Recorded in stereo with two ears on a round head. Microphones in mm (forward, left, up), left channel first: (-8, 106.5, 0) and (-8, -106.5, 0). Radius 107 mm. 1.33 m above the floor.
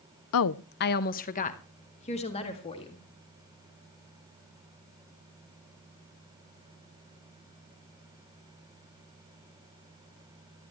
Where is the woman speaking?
65° left (ahead or behind), 0.6 m; by 3.0 s 25° left (ahead or behind), 3 m.